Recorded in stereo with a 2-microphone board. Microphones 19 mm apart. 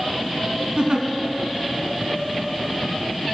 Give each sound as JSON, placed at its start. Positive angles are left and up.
{"t": 0.8, "sound": "a giggle", "side_deg": -45, "distance_m": 0.8}